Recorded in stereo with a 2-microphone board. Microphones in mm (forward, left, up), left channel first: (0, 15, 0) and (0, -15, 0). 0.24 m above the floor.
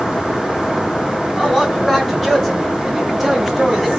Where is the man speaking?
10° left (ahead or behind), 2 m; by 3.9 s 10° right (ahead or behind), 1.5 m.